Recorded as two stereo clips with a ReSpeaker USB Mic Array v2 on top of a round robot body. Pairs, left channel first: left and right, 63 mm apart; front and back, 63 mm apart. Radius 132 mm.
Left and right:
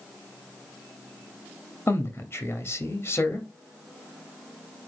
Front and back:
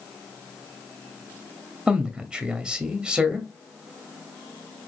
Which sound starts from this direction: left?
A man speaking, at 1.9 s.